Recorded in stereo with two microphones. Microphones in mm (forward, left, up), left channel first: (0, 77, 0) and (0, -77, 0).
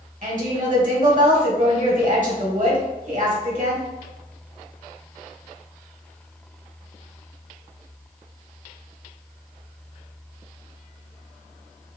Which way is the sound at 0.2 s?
60° right (ahead or behind).